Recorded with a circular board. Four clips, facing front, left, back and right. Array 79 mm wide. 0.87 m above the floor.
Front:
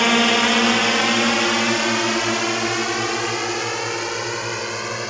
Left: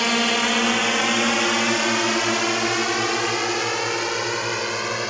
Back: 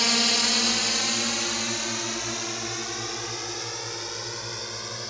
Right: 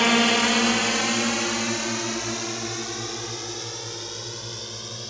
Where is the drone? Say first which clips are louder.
Right 1 dB, front 11 dB; 10° right; by 5.1 s 55° left.